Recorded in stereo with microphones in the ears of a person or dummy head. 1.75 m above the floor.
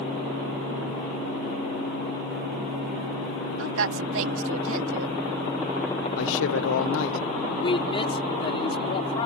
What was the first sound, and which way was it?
A woman speaking, 80° right.